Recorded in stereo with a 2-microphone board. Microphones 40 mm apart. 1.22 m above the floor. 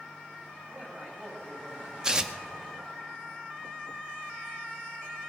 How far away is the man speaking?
About 6.5 m.